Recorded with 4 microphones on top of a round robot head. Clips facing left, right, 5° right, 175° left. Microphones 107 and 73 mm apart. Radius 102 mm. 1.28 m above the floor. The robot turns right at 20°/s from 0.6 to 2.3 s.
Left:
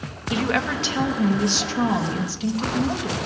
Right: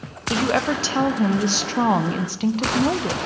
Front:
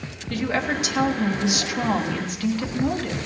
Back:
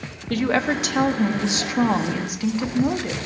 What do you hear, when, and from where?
0.3 s a woman speaking: 145° right, 1.0 m; by 3.2 s 110° right, 1.0 m